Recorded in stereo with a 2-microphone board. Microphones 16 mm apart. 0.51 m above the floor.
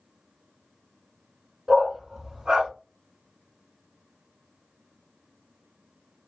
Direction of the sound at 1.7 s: 60° right (ahead or behind).